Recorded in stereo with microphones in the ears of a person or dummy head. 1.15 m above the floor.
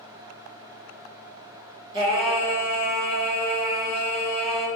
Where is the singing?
20° right (ahead or behind), 1.0 m.